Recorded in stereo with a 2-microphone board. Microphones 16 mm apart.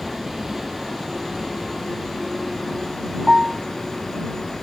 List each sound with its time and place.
0.0 s a vehicle: 25° right (ahead or behind); by 4.6 s 10° right (ahead or behind)
3.3 s a piano: 30° right (ahead or behind)